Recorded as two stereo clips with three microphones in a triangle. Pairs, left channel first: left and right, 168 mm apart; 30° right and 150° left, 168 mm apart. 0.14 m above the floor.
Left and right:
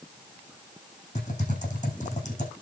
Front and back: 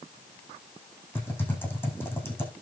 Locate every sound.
1.1 s typing on a keyboard: 45° left, 7.5 m